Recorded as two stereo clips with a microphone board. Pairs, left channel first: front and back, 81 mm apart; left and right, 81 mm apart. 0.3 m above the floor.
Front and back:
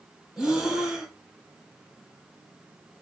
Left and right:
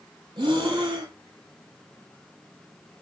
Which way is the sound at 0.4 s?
100° right.